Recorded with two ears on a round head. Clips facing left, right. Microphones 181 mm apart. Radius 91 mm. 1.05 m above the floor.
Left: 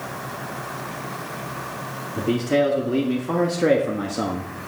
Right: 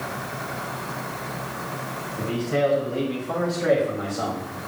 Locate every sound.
2.2 s a man speaking: 80° left, 2.5 m; by 4.5 s 45° left (ahead or behind), 1.4 m